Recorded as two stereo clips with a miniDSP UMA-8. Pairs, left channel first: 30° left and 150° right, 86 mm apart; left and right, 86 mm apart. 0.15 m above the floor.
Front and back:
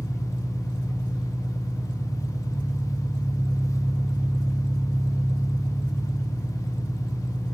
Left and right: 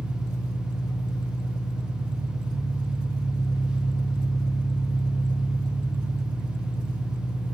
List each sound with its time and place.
0.0 s an engine running: 135° left, 3 m